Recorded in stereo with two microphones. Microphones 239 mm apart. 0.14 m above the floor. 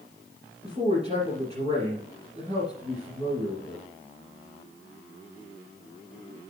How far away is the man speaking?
About 2.5 m.